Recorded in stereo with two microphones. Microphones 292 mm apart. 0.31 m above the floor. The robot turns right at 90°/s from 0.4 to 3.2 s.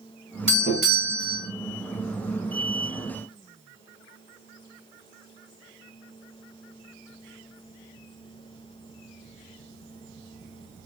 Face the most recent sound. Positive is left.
turn(degrees=-80)